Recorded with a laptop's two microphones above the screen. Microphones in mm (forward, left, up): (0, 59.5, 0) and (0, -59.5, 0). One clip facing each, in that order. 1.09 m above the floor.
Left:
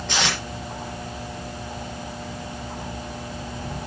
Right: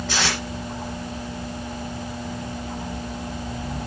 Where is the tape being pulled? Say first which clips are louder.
Left 1 dB; 5° right (ahead or behind), 5.5 m.